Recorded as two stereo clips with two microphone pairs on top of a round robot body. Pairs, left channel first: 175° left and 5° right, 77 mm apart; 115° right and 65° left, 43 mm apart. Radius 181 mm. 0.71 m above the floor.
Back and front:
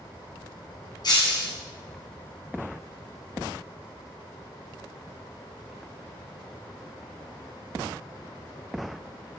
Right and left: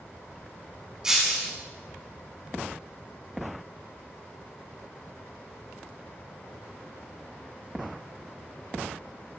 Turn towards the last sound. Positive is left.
turn(degrees=140)